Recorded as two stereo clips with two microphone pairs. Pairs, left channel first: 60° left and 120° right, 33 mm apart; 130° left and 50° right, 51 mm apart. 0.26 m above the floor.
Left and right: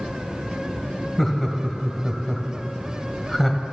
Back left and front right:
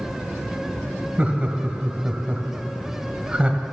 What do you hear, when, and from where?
1.2 s laughter: 15° right, 1.2 m